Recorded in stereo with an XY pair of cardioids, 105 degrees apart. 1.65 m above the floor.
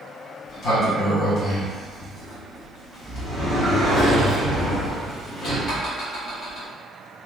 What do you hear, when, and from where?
0.5 s a sliding door: 70° left, 1.3 m